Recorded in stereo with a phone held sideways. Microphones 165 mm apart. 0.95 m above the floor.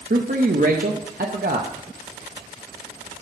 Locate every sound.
0.1 s a man speaking: 60° right (ahead or behind), 0.8 m